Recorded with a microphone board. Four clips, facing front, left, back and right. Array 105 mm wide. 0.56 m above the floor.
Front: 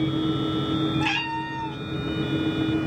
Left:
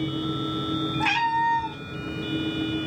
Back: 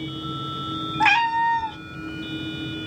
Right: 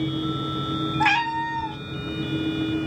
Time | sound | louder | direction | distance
1.0 | a cat meowing | even, back 8 dB | 165° right | 0.7 m